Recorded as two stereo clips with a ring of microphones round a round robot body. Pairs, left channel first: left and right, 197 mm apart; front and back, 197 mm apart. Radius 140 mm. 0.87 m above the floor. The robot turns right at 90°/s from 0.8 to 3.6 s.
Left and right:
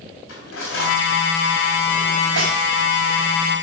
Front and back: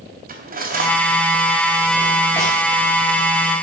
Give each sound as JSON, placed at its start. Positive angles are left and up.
{"t": 0.3, "sound": "cutlery clinking", "azimuth_deg": 140, "distance_m": 3.0}